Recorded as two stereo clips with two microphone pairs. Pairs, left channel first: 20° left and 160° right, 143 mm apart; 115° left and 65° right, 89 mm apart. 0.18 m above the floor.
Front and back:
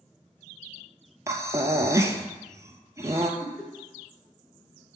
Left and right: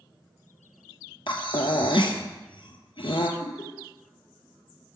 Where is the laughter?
100° left, 3 m.